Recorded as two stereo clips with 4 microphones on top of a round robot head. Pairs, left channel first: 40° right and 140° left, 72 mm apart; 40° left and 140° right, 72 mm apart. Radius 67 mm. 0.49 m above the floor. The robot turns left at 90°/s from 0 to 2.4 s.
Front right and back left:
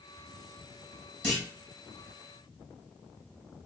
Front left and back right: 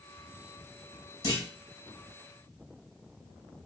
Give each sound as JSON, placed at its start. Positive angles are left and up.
{"t": 1.2, "sound": "a clunk", "azimuth_deg": 50, "distance_m": 3.0}